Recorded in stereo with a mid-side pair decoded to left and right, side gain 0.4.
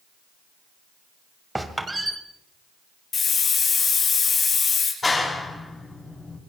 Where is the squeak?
15° right, 2 m.